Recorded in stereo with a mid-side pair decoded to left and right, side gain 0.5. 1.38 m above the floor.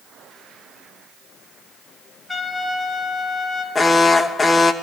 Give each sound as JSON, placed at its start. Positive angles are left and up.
{"t": 2.3, "sound": "a trumpet", "azimuth_deg": 20, "distance_m": 9.0}
{"t": 3.8, "sound": "an alarm", "azimuth_deg": 25, "distance_m": 2.5}